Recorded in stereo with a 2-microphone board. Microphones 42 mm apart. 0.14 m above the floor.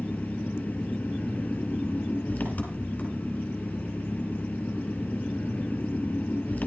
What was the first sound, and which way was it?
An engine running, 40° left (ahead or behind).